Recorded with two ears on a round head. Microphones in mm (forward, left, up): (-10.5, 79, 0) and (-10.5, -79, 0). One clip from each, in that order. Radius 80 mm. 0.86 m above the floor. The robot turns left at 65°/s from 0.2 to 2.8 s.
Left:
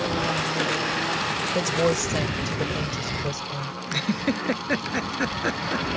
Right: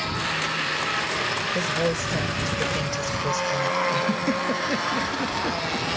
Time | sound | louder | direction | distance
1.6 | a woman speaking | left 1 dB | 55° left | ?
3.9 | a giggle | right 3 dB | 45° left (ahead or behind) | ?